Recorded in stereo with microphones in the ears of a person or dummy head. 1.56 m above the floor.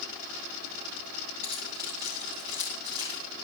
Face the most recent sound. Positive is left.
turn(degrees=-25)  # may be behind; listen again after turning